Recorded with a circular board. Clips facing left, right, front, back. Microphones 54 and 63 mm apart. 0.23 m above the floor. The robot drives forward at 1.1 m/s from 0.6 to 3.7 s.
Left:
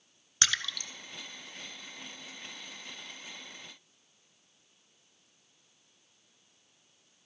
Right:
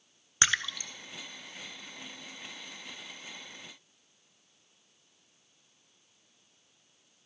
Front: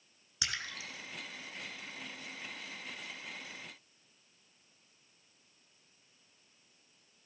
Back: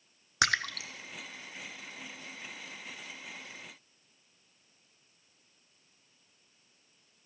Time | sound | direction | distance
0.4 | a splash | 155° right | 0.6 m